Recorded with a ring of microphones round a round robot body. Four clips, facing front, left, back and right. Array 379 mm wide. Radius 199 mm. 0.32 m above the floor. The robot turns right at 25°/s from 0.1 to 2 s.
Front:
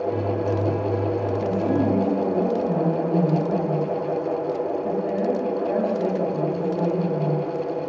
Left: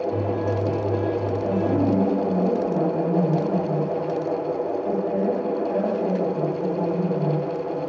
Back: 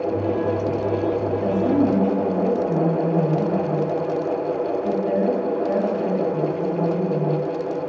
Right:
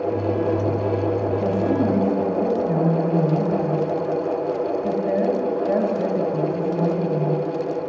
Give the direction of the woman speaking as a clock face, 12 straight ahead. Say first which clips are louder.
Even, back 4 dB; 4 o'clock.